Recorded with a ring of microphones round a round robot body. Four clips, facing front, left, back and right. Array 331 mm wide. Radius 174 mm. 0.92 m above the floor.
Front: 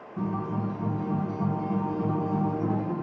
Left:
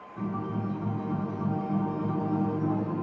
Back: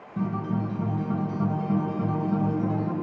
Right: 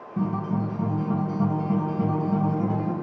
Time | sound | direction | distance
0.2 | a guitar | 125° right | 3.5 m